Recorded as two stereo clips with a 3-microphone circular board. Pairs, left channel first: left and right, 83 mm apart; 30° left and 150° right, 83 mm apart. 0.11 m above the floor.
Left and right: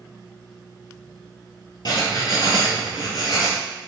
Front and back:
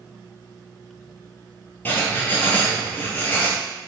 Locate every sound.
1.9 s writing: 90° left, 0.8 m